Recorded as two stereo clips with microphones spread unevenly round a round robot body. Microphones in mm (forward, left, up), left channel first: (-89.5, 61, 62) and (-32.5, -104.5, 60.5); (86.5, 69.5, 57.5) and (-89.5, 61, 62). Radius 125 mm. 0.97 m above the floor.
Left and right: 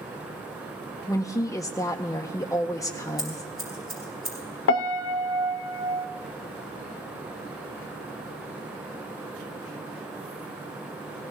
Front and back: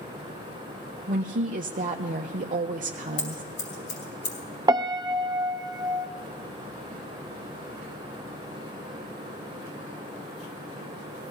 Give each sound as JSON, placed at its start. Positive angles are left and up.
{"t": 1.1, "sound": "a woman speaking", "azimuth_deg": 175, "distance_m": 0.8}
{"t": 3.2, "sound": "scissors", "azimuth_deg": 15, "distance_m": 4.5}
{"t": 4.7, "sound": "a piano", "azimuth_deg": 115, "distance_m": 0.8}